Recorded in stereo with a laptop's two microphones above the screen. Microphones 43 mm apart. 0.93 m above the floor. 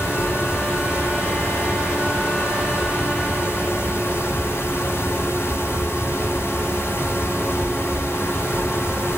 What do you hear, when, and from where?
0.0 s a fan: 75° left (ahead or behind), 1.4 m